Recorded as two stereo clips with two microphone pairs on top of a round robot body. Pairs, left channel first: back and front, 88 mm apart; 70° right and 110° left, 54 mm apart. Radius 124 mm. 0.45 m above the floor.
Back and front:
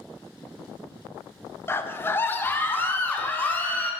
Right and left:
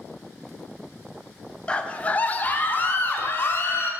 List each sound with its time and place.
1.7 s a scream: 130° right, 1.3 m; by 3.9 s 115° right, 2.5 m